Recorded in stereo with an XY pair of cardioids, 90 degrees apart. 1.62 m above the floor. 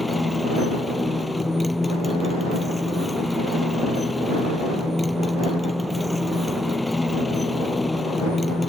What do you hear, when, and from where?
0.0 s a motorcycle: 15° left